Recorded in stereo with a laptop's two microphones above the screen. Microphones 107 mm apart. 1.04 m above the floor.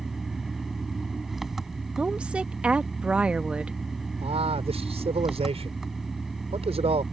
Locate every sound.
0.0 s an engine running: 5° right (ahead or behind)
2.0 s a woman speaking: 10° right (ahead or behind)
4.2 s a man speaking: 75° right (ahead or behind)